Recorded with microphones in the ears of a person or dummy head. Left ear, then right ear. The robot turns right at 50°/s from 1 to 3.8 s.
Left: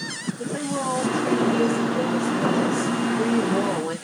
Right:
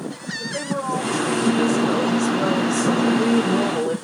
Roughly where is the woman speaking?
Right.